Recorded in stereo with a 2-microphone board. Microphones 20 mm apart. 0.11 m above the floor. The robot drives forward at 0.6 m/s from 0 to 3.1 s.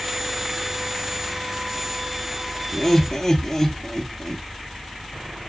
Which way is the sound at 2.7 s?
10° left (ahead or behind).